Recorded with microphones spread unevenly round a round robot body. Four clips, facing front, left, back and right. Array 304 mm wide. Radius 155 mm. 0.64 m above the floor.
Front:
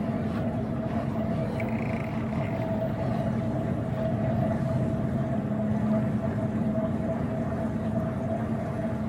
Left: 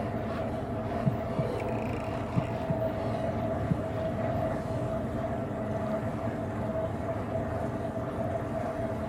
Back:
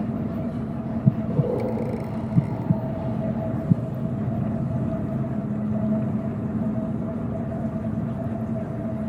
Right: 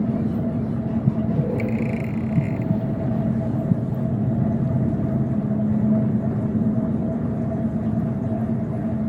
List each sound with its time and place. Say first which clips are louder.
0.0 s an engine running: right 9 dB, back 2 dB; 100° right
1.1 s breathing: right 8 dB, back 6 dB; 150° right